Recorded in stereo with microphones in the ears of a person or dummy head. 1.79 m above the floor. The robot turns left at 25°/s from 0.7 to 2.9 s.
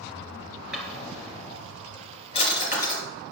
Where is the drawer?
5° right (ahead or behind), 3 m; by 3.0 s 40° left (ahead or behind), 3 m.